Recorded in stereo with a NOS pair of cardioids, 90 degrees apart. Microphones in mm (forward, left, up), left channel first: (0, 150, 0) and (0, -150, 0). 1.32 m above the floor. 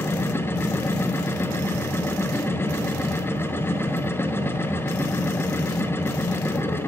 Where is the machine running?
10° left, 0.7 m.